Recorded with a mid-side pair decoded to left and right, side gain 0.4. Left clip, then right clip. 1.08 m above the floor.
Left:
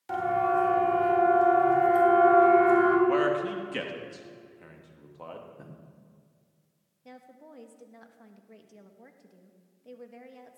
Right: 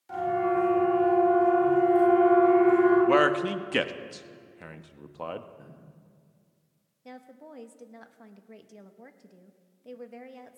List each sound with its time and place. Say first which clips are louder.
0.1 s a siren: left 1 dB; 65° left, 5.5 m
3.1 s a man speaking: right 3 dB; 60° right, 1.1 m
5.6 s a man speaking: left 1 dB; 35° left, 3.5 m
7.0 s a woman speaking: right 3 dB; 30° right, 1.4 m